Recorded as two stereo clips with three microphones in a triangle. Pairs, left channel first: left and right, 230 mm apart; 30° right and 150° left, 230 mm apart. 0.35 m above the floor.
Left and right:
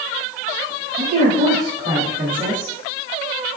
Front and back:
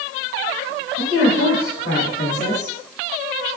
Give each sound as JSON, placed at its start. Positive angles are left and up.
{"t": 1.0, "sound": "a woman speaking", "azimuth_deg": -45, "distance_m": 3.0}